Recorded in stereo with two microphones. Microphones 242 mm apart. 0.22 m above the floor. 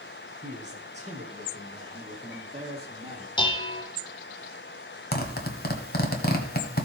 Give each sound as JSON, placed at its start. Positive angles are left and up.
{"t": 0.4, "sound": "a man speaking", "side_deg": -30, "distance_m": 3.5}
{"t": 3.4, "sound": "dishes clattering", "side_deg": 20, "distance_m": 1.0}
{"t": 5.1, "sound": "a zipper", "side_deg": 40, "distance_m": 1.6}